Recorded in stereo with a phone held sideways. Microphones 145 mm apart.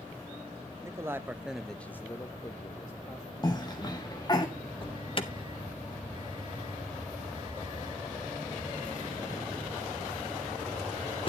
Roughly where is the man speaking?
Right.